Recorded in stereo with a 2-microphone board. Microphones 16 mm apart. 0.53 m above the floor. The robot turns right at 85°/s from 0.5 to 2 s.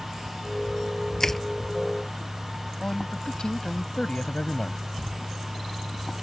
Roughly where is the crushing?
Left.